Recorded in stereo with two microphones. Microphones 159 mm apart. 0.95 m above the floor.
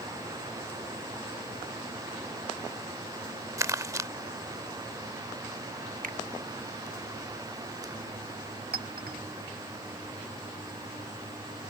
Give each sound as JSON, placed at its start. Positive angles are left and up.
{"t": 3.6, "sound": "crumpling", "side_deg": -20}
{"t": 6.0, "sound": "a finger snap", "side_deg": -60}
{"t": 8.7, "sound": "a clink", "side_deg": -85}